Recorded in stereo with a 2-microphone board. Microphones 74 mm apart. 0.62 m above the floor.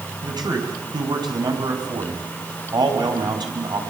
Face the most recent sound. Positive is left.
turn(degrees=-70)  # may be behind; listen again after turning